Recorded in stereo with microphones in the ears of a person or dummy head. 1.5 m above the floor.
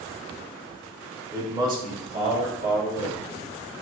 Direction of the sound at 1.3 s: 15° right (ahead or behind).